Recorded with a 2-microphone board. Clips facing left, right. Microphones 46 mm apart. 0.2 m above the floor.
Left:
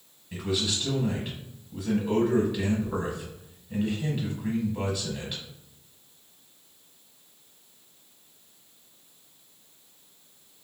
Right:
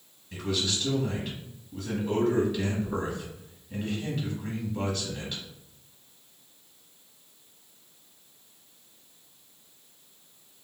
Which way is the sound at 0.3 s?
10° left (ahead or behind).